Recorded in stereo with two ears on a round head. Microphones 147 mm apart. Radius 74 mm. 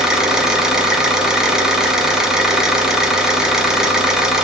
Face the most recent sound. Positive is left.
turn(degrees=-5)  # may be behind; listen again after turning